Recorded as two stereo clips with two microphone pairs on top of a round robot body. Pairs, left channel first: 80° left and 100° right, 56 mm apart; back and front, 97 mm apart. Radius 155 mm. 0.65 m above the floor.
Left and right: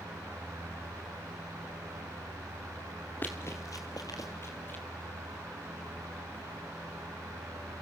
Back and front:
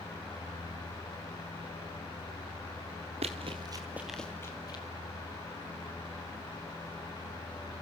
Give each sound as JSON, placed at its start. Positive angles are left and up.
{"t": 3.2, "sound": "running footsteps", "azimuth_deg": 20, "distance_m": 0.8}